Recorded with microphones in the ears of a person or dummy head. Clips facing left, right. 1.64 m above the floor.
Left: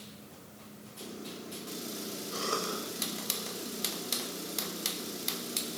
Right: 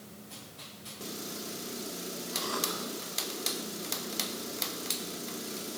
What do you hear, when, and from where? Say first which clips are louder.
2.3 s a cough: left 2 dB; 75° left (ahead or behind), 7.5 m